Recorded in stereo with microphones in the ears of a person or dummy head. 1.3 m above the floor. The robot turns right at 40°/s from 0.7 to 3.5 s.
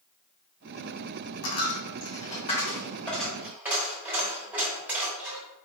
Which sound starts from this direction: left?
A dropped coin, at 1.4 s.